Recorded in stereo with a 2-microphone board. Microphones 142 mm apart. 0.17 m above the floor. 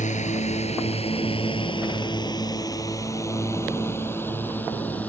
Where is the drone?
60° left (ahead or behind); by 5.1 s 10° left (ahead or behind).